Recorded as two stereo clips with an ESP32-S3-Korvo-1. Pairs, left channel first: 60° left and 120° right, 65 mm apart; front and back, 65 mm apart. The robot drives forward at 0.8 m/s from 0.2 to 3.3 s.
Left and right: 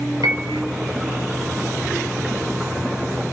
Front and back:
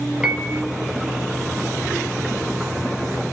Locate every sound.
0.2 s a piano: 105° right, 3 m; by 0.6 s 110° right, 3 m